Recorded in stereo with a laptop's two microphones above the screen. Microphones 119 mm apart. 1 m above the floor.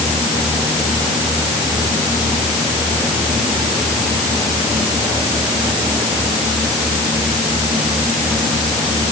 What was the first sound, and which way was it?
Only background noise.